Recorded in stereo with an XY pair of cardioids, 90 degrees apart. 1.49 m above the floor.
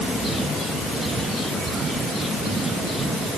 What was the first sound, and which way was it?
Only background noise.